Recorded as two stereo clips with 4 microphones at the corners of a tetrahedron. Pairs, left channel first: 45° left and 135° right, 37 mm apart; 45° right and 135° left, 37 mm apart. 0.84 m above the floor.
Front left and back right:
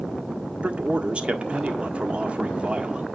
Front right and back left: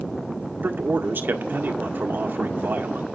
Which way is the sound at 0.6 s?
165° left.